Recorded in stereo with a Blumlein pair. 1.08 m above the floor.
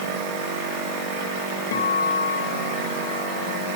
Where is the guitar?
60° left, 2.5 m.